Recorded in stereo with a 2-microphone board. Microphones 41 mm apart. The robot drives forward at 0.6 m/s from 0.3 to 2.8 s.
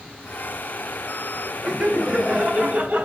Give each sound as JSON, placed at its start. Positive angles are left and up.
{"t": 1.6, "sound": "laughter", "side_deg": -35, "distance_m": 2.0}